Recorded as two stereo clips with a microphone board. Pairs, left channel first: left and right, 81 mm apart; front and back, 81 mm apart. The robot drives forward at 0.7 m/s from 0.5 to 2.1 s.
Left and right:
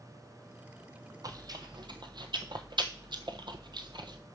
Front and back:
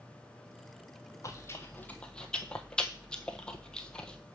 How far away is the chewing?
About 1.2 m.